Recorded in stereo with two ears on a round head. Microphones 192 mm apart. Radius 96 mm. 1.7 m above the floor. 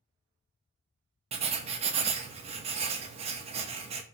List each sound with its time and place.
1.3 s writing: 30° right (ahead or behind), 0.6 m